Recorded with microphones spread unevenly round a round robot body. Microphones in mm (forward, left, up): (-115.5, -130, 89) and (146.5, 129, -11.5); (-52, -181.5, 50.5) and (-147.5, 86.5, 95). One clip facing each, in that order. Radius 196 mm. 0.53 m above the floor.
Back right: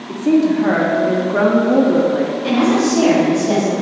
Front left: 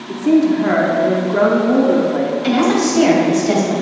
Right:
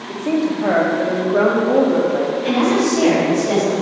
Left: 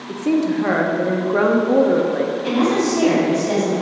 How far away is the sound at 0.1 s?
About 0.8 m.